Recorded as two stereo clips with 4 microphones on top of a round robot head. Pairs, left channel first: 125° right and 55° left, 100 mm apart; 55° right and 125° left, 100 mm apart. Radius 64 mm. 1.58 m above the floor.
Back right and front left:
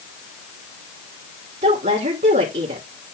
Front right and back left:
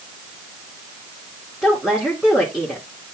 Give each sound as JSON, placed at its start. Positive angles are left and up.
{"t": 1.6, "sound": "a woman speaking", "azimuth_deg": 35, "distance_m": 2.5}